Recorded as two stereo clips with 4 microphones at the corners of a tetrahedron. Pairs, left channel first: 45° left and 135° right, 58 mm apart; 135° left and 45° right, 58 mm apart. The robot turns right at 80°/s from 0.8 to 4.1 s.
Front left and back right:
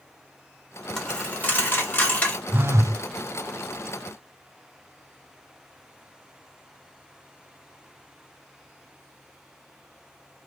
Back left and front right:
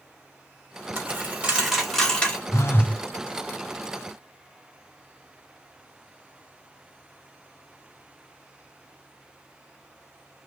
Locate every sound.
1.0 s a dropped coin: 25° right, 1.4 m; by 2.4 s 90° left, 1.4 m
2.5 s a phone buzzing: 170° left, 0.5 m; by 3.0 s 150° right, 0.5 m